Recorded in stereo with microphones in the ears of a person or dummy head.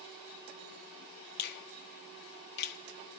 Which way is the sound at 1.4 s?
65° left (ahead or behind).